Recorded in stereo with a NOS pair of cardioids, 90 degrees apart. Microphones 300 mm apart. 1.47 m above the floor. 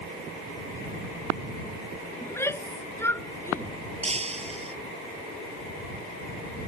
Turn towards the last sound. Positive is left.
turn(degrees=-20)